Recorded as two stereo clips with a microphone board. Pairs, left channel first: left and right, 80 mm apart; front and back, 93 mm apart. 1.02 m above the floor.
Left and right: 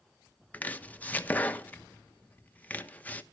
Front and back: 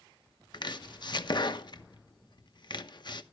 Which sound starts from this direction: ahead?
Chopping, at 0.5 s.